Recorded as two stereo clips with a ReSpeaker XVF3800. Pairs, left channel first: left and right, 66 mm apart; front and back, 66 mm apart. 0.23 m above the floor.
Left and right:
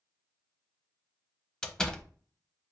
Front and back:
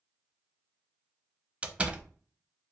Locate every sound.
1.6 s a door slam: 150° left, 0.6 m